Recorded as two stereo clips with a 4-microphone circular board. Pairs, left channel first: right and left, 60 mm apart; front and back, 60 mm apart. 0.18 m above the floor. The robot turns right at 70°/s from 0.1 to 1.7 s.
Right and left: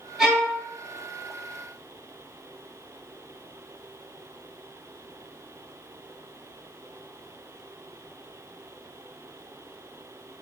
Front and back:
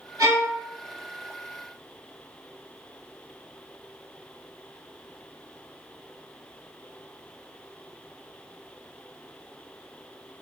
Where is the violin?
175° left, 1.1 m; by 0.5 s 160° right, 1.1 m.